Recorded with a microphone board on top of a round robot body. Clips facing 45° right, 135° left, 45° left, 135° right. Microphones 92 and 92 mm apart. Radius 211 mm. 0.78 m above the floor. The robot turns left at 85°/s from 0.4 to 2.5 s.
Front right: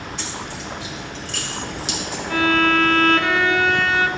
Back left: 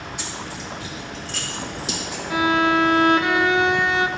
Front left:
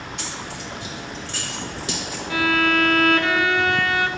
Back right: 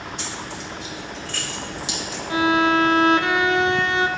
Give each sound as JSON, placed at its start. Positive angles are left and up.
{"t": 0.2, "sound": "keys jangling", "azimuth_deg": 55, "distance_m": 3.5}
{"t": 2.3, "sound": "a violin", "azimuth_deg": -155, "distance_m": 1.1}